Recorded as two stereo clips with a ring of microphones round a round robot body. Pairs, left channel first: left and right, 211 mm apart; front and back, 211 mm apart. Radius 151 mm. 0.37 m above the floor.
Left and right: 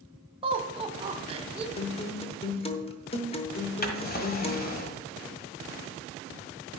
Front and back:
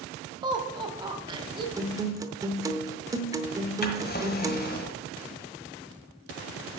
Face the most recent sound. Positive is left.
turn(degrees=45)